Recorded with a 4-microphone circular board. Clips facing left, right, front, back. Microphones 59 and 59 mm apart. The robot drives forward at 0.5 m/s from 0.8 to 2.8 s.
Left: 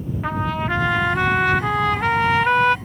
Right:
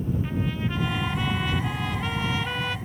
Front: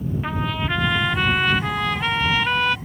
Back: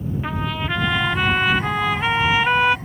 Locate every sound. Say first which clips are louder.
0.2 s a trumpet: left 6 dB, even; 90° left; by 2.8 s 115° left